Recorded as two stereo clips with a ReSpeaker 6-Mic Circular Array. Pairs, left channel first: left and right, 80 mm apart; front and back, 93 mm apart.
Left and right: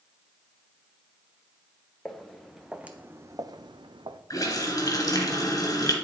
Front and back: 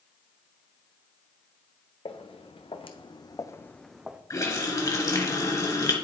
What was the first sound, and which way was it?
Footsteps, 5° left.